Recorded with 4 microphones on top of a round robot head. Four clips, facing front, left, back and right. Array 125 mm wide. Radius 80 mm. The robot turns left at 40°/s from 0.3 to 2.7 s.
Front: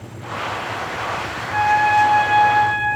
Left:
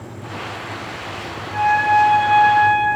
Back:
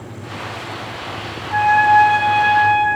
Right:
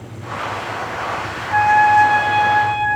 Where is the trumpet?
115° right, 5 m; by 2.9 s 165° right, 5 m.